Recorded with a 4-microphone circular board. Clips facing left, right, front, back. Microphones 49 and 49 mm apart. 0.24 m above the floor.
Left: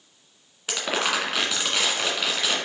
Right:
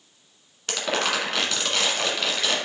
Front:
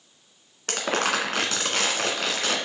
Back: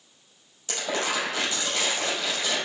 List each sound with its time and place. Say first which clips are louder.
0.7 s crumpling: even, front 3 dB; 10° left, 1.5 m